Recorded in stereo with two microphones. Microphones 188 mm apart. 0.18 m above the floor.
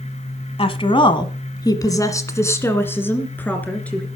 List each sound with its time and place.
0.6 s a woman speaking: 30° left (ahead or behind), 1.2 m; by 4.0 s 5° left (ahead or behind), 2.5 m